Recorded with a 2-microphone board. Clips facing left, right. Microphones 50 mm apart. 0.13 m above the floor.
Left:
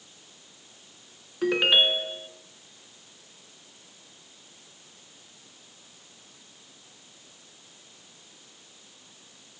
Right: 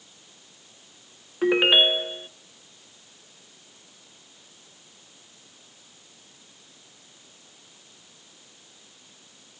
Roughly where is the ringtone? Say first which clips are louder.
Right 3 dB; centre.